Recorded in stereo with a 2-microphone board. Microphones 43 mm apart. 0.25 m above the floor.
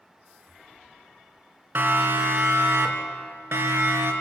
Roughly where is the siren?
Right.